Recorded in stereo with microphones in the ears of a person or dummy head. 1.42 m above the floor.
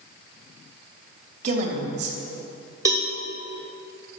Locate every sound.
1.4 s a woman speaking: 40° right (ahead or behind), 3 m
2.9 s a cowbell: 20° right (ahead or behind), 1.2 m